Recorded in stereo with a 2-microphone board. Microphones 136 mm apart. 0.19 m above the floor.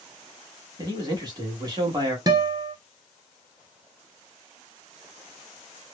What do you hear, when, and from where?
0.8 s a man speaking: 30° right (ahead or behind), 1.2 m
2.3 s a guitar: 30° right (ahead or behind), 0.7 m